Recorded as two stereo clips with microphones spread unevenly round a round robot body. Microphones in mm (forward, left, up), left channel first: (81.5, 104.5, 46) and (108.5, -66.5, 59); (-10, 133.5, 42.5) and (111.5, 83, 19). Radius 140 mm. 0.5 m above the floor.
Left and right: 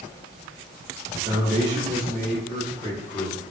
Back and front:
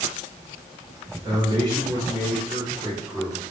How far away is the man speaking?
About 1.2 m.